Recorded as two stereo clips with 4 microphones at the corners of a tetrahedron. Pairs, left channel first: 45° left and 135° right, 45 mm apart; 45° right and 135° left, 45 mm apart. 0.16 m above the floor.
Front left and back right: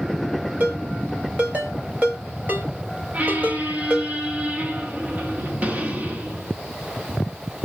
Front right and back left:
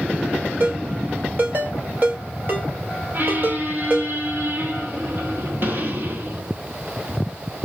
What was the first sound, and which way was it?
A ringtone, straight behind.